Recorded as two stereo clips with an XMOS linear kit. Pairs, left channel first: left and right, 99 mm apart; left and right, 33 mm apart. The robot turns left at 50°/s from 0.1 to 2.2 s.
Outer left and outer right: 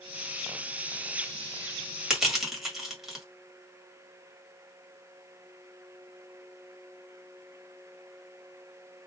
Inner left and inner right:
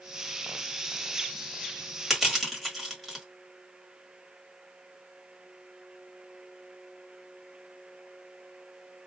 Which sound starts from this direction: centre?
Crushing, at 2.1 s.